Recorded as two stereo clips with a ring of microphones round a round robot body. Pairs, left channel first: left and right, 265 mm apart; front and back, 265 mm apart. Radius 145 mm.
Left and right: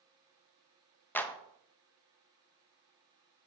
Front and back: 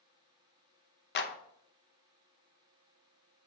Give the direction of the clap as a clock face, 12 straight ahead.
12 o'clock.